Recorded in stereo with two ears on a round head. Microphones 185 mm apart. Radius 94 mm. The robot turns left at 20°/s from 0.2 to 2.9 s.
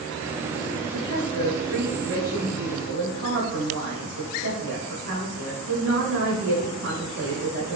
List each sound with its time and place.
0.9 s a woman speaking: 55° right, 2 m; by 7.8 s 95° right, 2 m